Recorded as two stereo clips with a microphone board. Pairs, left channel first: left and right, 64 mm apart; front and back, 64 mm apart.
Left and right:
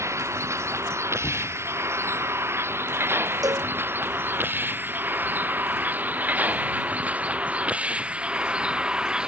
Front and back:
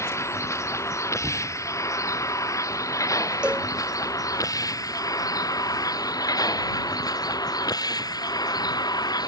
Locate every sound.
0.0 s a vehicle: 45° right; by 9.3 s 10° right
1.2 s knocking: 75° left
3.4 s a cowbell: 105° right